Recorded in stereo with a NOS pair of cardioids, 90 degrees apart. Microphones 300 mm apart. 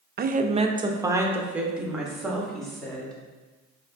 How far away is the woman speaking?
About 0.5 m.